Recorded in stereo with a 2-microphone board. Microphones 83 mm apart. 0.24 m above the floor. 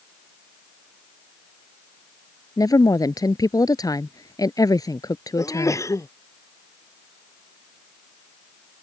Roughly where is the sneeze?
Left.